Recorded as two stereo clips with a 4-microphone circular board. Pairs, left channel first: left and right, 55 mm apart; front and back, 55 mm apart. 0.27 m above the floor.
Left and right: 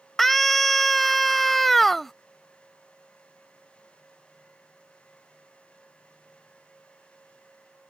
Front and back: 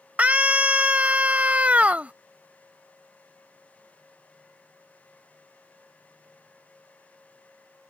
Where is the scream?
170° left.